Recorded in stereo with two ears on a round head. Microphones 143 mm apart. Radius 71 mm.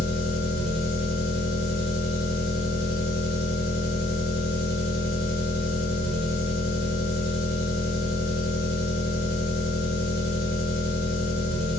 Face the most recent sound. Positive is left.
turn(degrees=60)  # may be behind; listen again after turning